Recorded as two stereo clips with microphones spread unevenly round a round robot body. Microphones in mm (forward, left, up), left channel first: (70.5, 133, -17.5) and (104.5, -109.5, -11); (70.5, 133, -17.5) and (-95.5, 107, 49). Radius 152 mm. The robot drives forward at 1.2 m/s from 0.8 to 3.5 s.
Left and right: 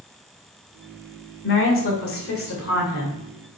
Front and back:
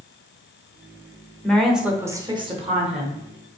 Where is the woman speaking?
75° left, 1.8 m; by 3.2 s 140° left, 2.5 m.